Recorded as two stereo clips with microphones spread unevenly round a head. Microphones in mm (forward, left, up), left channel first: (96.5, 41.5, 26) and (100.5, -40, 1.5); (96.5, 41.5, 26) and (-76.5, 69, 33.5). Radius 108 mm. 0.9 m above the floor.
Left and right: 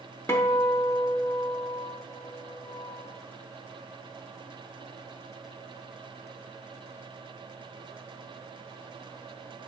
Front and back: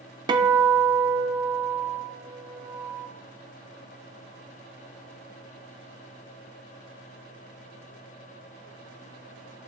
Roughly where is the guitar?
Behind left.